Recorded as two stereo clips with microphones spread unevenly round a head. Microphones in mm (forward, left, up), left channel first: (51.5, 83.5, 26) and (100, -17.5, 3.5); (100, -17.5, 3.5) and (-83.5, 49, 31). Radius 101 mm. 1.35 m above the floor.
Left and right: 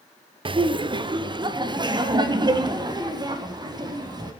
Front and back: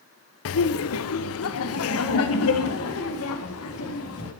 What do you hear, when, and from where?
0.5 s laughter: 20° right, 0.8 m; by 4.3 s 10° right, 3.5 m